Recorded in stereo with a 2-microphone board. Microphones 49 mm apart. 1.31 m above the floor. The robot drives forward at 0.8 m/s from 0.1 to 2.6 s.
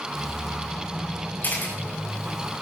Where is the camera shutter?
40° left (ahead or behind), 6 m.